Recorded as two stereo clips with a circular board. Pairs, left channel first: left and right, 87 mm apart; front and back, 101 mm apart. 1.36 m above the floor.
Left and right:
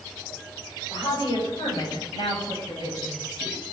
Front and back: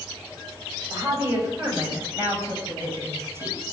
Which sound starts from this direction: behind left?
A woman speaking, at 0.9 s.